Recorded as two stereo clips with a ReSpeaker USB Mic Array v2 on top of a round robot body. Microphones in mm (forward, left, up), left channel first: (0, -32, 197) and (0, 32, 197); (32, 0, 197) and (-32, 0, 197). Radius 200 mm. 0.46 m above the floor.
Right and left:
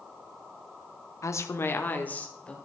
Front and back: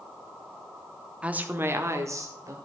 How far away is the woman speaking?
About 1.3 m.